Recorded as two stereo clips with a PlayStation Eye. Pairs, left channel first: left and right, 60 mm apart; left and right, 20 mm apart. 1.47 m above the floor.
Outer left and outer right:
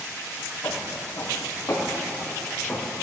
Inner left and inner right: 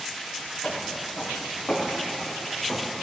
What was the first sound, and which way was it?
Footsteps, 65° left (ahead or behind).